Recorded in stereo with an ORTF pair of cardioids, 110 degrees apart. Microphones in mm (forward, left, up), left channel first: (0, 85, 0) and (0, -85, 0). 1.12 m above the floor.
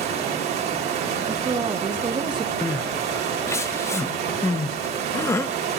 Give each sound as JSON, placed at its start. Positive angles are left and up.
{"t": 0.0, "sound": "running water", "azimuth_deg": -70, "distance_m": 3.0}
{"t": 1.3, "sound": "a woman speaking", "azimuth_deg": -25, "distance_m": 1.1}
{"t": 2.6, "sound": "crying", "azimuth_deg": 15, "distance_m": 0.5}